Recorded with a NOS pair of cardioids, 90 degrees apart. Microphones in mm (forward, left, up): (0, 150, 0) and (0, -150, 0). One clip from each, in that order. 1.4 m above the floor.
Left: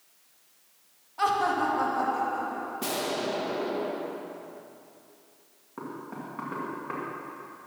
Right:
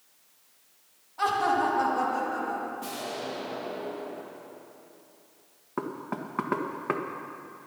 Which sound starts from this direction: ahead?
Laughter, at 1.2 s.